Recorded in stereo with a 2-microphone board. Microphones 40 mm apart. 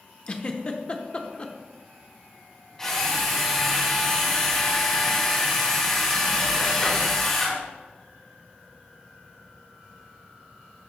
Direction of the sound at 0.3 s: 30° left (ahead or behind).